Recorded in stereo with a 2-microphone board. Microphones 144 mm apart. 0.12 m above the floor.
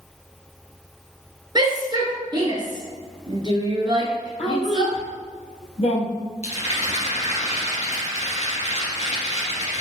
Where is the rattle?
50° left (ahead or behind), 2.5 m.